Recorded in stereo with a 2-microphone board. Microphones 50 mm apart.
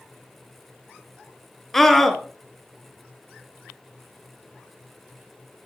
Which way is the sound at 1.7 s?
5° left (ahead or behind).